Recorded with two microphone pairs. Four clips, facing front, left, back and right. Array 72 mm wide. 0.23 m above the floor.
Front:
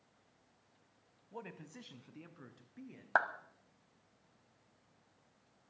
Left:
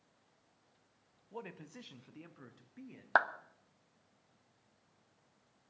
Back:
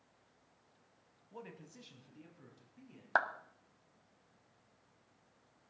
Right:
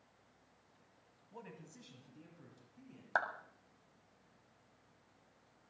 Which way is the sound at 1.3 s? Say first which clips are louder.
Left 6 dB, front 3 dB; 40° left.